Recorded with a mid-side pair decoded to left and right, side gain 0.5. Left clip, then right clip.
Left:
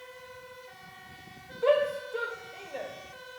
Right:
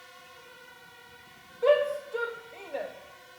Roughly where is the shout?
Ahead.